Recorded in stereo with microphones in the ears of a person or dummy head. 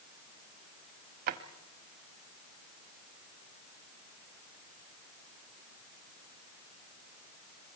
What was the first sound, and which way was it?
A drawer, 40° right (ahead or behind).